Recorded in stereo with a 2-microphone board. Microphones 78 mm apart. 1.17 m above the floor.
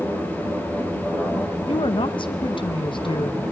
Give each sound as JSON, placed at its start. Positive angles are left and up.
{"t": 1.7, "sound": "a woman speaking", "side_deg": 85, "distance_m": 0.9}